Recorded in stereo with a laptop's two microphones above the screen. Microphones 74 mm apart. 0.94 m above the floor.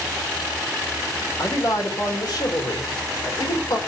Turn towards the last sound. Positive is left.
turn(degrees=80)